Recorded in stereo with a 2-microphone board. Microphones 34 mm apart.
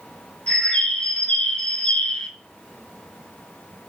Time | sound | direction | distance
0.5 | a bird | 35° left (ahead or behind) | 1.3 m